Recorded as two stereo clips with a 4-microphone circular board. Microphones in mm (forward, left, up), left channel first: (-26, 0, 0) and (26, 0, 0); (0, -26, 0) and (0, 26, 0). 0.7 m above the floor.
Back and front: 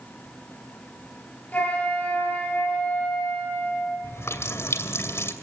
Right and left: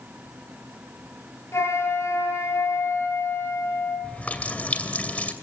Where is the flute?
120° right, 10 m.